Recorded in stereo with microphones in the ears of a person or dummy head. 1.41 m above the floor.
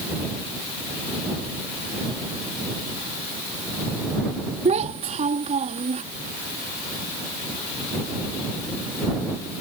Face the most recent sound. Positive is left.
turn(degrees=-35)  # may be behind; listen again after turning